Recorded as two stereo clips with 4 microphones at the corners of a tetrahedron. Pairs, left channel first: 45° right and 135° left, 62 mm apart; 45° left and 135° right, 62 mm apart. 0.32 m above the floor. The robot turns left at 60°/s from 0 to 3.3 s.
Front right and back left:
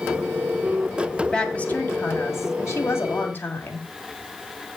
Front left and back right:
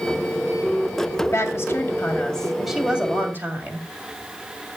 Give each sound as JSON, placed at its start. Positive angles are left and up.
{"t": 1.2, "sound": "a woman speaking", "azimuth_deg": 35, "distance_m": 2.0}